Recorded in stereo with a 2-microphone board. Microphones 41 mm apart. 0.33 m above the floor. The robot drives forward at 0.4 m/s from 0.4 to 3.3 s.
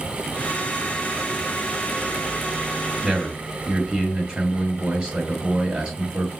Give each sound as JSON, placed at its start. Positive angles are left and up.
{"t": 3.0, "sound": "a man speaking", "side_deg": -15, "distance_m": 2.0}